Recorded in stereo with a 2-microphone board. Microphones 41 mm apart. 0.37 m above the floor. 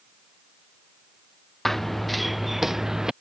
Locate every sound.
1.6 s running footsteps: 5° left (ahead or behind); by 3.1 s 15° right (ahead or behind)